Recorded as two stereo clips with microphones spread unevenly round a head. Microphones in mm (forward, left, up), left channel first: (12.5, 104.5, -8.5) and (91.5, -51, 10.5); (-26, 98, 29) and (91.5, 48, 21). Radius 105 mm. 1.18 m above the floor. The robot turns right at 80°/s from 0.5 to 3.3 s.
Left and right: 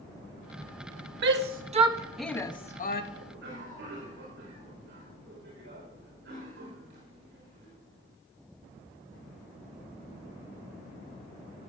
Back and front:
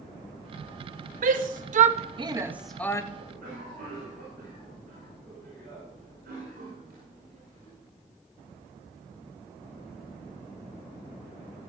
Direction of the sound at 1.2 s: 50° right.